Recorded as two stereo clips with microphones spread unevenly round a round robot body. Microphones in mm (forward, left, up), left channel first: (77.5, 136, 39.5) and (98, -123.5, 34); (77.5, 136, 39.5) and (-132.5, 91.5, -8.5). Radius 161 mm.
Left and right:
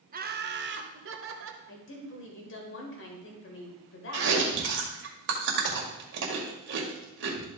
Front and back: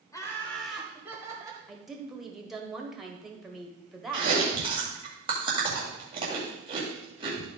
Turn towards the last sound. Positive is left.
turn(degrees=-115)